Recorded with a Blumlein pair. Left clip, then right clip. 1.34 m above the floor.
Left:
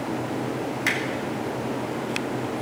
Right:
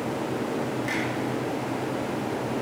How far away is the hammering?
About 3 m.